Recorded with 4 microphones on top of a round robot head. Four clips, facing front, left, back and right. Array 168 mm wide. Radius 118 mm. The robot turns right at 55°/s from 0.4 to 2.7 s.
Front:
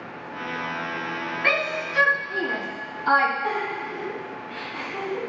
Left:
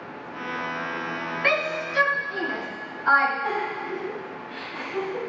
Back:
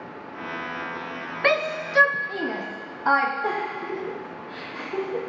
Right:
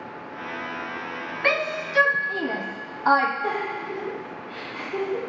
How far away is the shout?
About 0.8 m.